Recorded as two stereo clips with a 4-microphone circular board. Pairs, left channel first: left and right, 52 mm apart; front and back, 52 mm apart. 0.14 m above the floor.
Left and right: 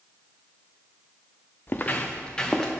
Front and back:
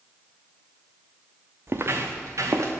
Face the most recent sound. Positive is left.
turn(degrees=170)